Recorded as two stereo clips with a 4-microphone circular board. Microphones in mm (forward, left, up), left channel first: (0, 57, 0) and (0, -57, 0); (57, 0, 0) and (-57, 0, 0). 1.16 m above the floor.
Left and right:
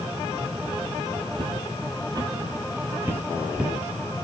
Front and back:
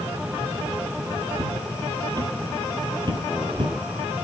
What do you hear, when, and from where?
1.4 s footsteps: 125° right, 2 m; by 3.8 s 170° right, 1.6 m